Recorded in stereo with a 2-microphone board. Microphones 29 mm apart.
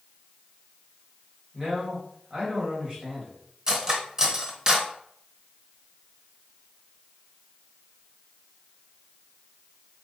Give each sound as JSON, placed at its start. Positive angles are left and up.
{"t": 1.5, "sound": "a man speaking", "side_deg": -25, "distance_m": 1.7}
{"t": 3.7, "sound": "cutlery clinking", "side_deg": -25, "distance_m": 0.9}